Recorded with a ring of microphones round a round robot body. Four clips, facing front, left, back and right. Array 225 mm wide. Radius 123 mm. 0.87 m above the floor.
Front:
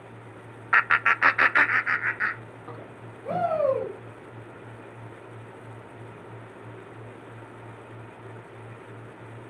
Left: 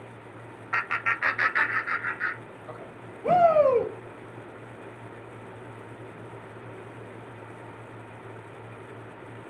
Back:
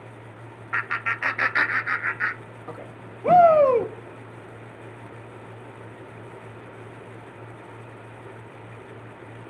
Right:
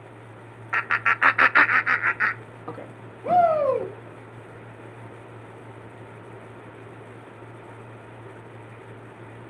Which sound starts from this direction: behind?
A shout, at 3.2 s.